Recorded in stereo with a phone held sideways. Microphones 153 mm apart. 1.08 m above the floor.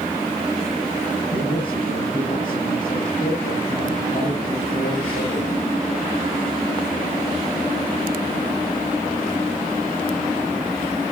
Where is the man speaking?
75° left (ahead or behind), 7 m.